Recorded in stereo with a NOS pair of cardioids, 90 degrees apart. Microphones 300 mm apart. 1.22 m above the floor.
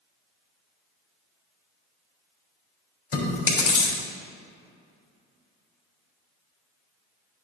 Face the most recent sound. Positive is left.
turn(degrees=40)